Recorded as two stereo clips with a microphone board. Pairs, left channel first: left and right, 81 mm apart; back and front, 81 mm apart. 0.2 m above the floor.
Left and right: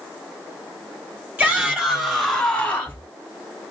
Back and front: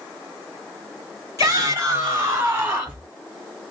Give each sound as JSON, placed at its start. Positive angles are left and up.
{"t": 1.4, "sound": "a shout", "azimuth_deg": -25, "distance_m": 1.4}